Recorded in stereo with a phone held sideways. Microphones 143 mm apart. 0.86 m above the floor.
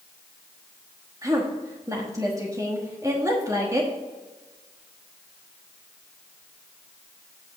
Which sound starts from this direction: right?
A woman speaking, at 1.2 s.